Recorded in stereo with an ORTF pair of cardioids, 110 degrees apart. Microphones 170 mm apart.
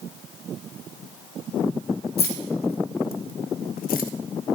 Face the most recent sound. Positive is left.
turn(degrees=60)